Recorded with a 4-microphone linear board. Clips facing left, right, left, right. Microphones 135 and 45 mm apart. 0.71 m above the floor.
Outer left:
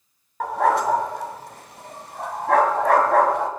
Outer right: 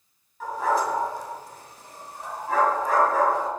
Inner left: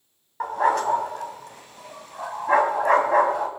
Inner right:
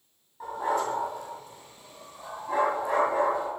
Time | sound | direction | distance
0.4 | a dog barking | 80° left | 2 m